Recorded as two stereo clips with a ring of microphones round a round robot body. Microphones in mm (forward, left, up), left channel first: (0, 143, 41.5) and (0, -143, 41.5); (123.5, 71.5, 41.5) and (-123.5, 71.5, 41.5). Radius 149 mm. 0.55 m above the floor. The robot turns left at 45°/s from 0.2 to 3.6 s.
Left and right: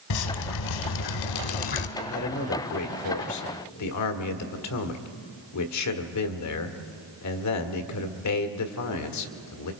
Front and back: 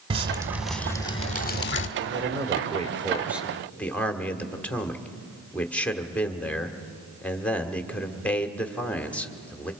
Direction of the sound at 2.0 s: 155° left.